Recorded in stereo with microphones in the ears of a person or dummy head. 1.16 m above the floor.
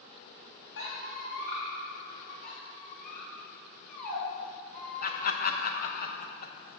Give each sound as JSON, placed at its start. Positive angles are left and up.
{"t": 0.8, "sound": "a squeak", "side_deg": 75, "distance_m": 2.0}
{"t": 2.4, "sound": "a squeak", "side_deg": 55, "distance_m": 2.5}
{"t": 5.0, "sound": "laughter", "side_deg": 45, "distance_m": 0.8}